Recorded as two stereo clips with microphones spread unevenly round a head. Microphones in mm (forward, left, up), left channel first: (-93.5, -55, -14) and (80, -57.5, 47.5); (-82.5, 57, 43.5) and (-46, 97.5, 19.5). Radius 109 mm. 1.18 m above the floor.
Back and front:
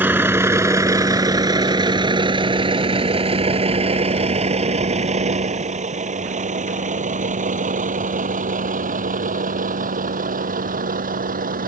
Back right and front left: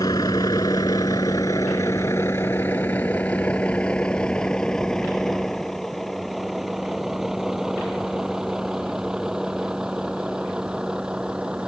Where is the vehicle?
75° right; by 11.7 s 40° right.